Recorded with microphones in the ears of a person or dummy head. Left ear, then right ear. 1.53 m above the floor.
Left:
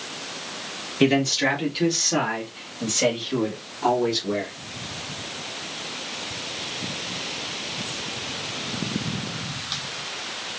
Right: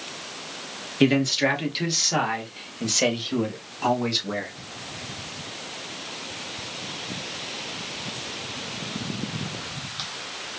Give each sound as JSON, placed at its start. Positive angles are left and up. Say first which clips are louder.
{"t": 1.0, "sound": "a man speaking", "louder": "left 1 dB", "side_deg": -10, "distance_m": 1.4}